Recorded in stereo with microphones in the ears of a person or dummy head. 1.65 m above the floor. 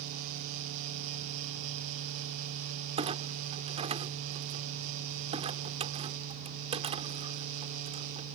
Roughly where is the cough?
No cough in this recording.